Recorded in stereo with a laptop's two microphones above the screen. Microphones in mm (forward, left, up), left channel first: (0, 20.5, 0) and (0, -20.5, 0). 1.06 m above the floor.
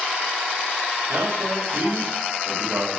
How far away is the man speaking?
About 4 m.